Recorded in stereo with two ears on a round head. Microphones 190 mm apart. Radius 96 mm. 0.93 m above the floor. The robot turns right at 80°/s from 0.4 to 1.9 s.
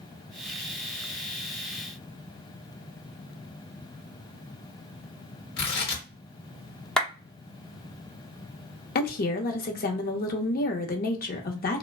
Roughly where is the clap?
Centre.